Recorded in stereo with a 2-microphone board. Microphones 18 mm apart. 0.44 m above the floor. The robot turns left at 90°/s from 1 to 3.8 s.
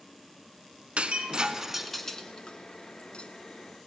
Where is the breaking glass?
80° right, 1.7 m; by 3.3 s 50° left (ahead or behind), 1.7 m.